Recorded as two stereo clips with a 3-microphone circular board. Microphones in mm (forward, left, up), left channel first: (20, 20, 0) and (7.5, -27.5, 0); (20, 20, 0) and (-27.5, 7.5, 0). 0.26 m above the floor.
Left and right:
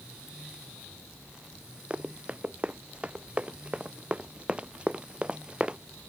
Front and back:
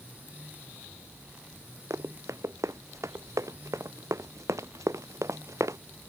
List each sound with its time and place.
1.9 s running footsteps: 170° right; by 5.8 s 175° right